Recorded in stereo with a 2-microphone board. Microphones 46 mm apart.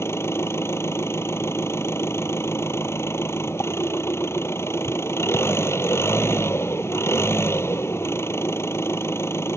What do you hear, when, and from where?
0.0 s an engine running: 70° left (ahead or behind)